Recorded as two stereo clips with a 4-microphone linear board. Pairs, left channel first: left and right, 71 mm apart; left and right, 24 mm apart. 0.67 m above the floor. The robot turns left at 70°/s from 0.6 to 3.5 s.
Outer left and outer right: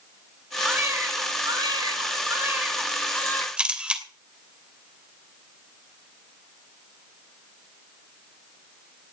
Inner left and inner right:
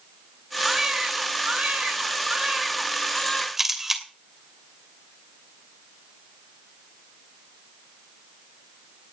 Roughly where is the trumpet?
No trumpet in this recording.